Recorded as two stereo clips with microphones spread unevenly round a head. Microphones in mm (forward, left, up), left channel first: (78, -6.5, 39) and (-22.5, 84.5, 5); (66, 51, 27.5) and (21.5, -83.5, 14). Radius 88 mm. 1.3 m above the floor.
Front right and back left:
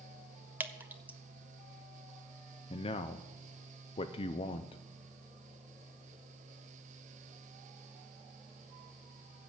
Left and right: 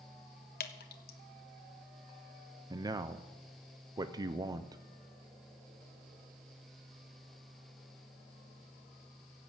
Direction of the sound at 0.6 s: 60° left.